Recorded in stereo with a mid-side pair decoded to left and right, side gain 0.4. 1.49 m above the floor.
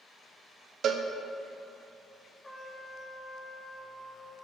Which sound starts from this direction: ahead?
A trumpet, at 2.4 s.